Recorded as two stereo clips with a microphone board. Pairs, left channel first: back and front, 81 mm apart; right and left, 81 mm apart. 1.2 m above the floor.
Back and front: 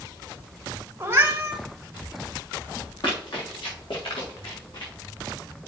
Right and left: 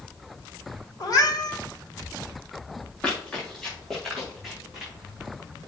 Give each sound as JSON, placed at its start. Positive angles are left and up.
{"t": 1.0, "sound": "a cat meowing", "azimuth_deg": -60, "distance_m": 1.8}
{"t": 3.0, "sound": "running footsteps", "azimuth_deg": -165, "distance_m": 6.5}